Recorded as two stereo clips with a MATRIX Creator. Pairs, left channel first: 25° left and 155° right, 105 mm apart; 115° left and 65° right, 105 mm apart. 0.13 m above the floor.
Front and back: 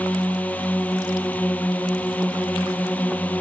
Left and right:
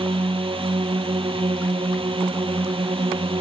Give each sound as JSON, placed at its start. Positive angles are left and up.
{"t": 0.0, "sound": "a drone", "azimuth_deg": -50}